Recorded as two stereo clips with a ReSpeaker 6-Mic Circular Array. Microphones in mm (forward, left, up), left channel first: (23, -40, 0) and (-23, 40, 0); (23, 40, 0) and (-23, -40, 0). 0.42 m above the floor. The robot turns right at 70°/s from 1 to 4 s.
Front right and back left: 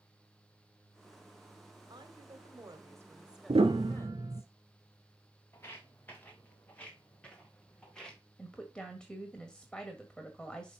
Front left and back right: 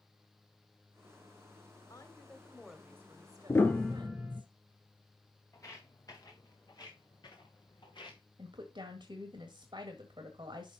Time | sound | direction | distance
1.9 | a woman speaking | 100° left | 1.8 m
3.5 | a piano | 120° left | 1.0 m
5.5 | footsteps | 5° left | 2.5 m
8.4 | a woman speaking | 140° right | 1.7 m